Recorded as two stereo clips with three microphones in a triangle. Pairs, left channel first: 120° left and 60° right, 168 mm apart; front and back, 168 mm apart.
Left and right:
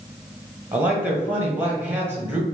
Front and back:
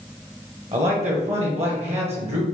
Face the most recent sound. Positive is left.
turn(degrees=-140)